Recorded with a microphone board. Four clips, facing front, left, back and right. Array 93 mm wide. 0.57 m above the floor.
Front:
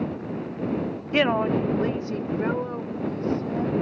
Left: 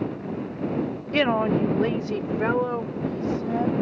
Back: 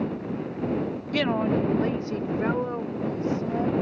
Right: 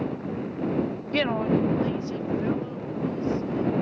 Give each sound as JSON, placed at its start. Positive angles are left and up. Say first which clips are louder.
{"t": 1.1, "sound": "a woman speaking", "louder": "left 3 dB, front 3 dB", "azimuth_deg": 20}